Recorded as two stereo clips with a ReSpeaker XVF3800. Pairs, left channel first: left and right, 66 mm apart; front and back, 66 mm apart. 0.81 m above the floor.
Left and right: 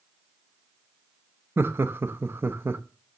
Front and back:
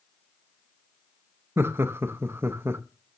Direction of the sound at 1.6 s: 135° right.